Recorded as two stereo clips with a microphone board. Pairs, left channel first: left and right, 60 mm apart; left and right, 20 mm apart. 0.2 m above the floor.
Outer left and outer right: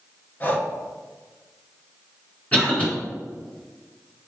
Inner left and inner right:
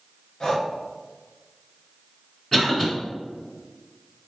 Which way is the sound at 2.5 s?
20° left (ahead or behind).